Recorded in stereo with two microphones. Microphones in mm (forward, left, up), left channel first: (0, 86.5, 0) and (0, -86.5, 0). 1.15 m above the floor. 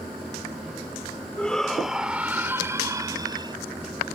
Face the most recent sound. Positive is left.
turn(degrees=-25)  # may be behind; listen again after turning